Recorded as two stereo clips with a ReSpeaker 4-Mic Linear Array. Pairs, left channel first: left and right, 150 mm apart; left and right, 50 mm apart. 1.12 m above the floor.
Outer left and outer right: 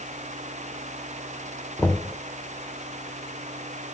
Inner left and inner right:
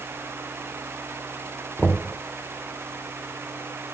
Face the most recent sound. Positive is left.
turn(degrees=10)  # may be behind; listen again after turning